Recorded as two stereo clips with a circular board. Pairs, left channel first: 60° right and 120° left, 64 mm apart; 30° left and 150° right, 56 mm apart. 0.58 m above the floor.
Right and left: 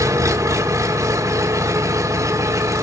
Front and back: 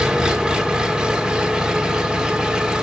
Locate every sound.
0.0 s an engine running: 135° left, 0.9 m